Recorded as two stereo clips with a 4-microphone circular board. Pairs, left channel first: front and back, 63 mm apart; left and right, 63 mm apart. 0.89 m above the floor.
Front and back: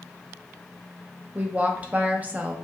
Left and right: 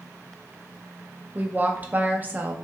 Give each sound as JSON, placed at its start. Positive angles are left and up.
{"t": 1.4, "sound": "a woman speaking", "azimuth_deg": -130, "distance_m": 0.6}